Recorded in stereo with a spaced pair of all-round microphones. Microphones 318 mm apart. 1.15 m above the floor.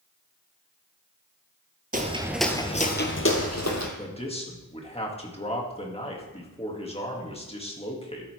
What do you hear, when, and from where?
1.9 s footsteps: 25° right (ahead or behind), 1.2 m; by 3.9 s 60° left (ahead or behind), 2 m
4.0 s a man speaking: 20° left (ahead or behind), 2.0 m